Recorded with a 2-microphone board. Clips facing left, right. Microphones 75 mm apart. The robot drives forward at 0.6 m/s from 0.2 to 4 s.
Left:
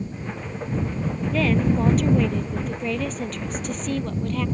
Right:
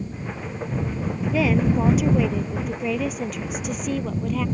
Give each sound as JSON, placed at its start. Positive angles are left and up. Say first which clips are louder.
{"t": 1.3, "sound": "a woman speaking", "louder": "right 1 dB", "side_deg": -10}